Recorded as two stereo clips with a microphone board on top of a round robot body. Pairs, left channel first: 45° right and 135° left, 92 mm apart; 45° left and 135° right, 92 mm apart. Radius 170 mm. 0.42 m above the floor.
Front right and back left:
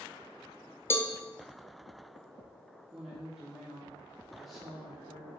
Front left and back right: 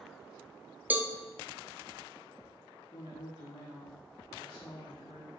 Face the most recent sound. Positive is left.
turn(degrees=45)